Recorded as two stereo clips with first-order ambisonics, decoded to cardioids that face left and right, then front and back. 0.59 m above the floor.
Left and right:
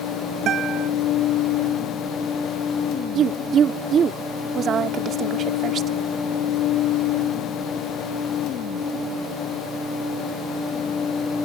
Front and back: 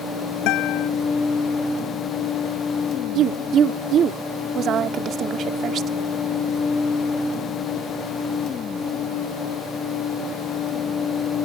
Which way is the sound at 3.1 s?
140° right.